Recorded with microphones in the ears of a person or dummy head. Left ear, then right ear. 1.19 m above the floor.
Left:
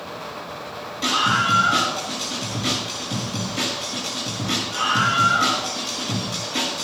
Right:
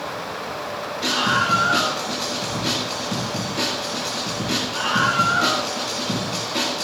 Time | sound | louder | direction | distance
1.0 | a scream | left 1 dB | 45° left (ahead or behind) | 7 m